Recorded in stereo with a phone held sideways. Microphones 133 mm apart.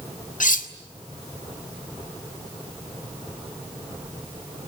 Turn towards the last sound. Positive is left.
turn(degrees=80)